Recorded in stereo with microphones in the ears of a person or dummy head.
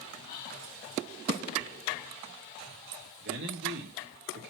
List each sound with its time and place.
0.3 s whispering: 30° left (ahead or behind), 4.5 m
3.2 s a man speaking: 65° right (ahead or behind), 3.5 m